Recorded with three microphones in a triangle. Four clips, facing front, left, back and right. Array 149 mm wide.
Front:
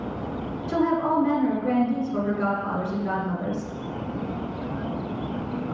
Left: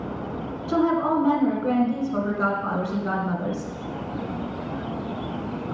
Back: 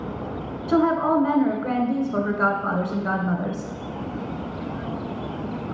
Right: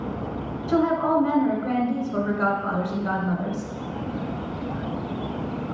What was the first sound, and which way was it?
A woman speaking, 170° right.